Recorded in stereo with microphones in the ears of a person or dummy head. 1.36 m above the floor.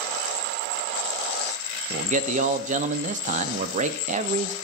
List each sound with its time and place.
1.9 s a man speaking: 40° right (ahead or behind), 0.6 m